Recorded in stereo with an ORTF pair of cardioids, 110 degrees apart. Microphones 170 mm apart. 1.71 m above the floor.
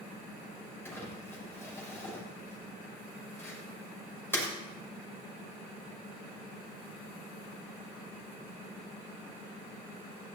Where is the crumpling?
15° left, 7.5 m.